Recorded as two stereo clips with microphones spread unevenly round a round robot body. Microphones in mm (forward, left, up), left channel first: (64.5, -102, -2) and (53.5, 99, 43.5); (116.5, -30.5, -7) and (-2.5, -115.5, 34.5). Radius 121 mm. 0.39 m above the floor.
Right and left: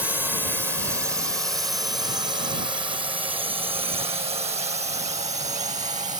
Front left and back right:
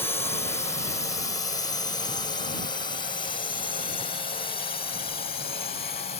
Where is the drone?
Straight ahead; by 6.2 s 40° left.